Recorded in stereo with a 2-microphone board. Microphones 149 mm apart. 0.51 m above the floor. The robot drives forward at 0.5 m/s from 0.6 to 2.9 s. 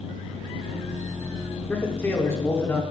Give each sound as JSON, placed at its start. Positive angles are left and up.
{"t": 1.7, "sound": "a man speaking", "side_deg": 15, "distance_m": 1.3}